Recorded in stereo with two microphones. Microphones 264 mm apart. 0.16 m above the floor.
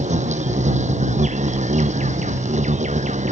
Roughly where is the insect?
Right.